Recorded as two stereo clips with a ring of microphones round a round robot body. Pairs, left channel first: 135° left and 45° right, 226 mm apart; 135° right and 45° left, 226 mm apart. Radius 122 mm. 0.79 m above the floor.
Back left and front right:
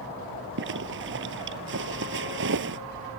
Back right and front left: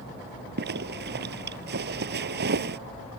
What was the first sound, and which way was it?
A zipper, 5° right.